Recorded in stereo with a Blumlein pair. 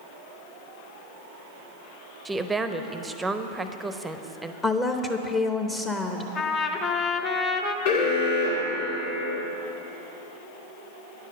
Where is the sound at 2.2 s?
10° right, 0.6 m.